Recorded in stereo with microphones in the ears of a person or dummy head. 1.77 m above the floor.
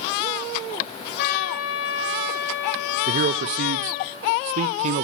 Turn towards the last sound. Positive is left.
turn(degrees=-45)  # may be behind; listen again after turning